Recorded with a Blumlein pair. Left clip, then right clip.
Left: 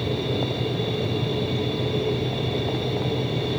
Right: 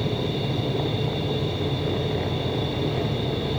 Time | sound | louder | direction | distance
0.0 | a machine running | left 1 dB | 10° right | 7 m